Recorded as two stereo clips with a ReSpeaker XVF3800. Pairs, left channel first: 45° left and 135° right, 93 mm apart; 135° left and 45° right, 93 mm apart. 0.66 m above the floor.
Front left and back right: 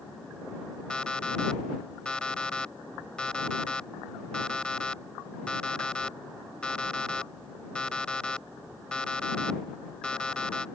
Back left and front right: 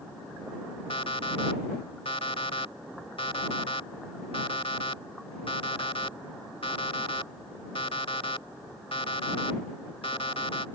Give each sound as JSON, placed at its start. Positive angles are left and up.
{"t": 0.9, "sound": "an alarm clock", "azimuth_deg": 125}